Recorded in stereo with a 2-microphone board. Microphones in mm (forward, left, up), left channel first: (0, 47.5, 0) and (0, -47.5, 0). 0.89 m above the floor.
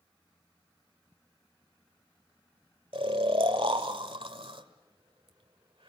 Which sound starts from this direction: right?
Snoring, at 2.9 s.